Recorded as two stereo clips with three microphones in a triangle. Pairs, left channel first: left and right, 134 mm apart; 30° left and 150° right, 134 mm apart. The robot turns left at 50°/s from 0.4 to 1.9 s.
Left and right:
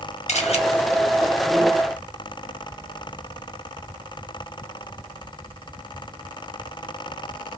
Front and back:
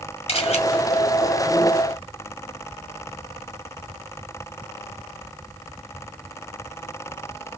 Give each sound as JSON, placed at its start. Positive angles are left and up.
{"t": 0.3, "sound": "a camera shutter", "azimuth_deg": 65, "distance_m": 1.3}